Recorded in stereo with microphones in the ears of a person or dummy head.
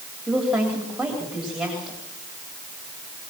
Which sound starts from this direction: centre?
A woman speaking, at 0.3 s.